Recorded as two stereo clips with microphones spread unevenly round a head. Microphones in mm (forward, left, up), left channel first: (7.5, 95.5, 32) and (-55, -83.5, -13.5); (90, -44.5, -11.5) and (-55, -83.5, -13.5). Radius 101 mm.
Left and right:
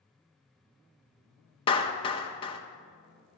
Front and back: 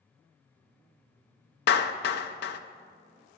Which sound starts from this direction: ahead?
A clap, at 1.7 s.